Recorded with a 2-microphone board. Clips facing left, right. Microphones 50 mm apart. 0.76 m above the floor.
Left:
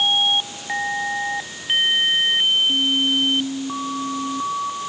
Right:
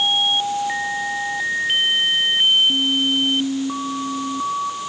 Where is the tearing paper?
I don't hear tearing paper.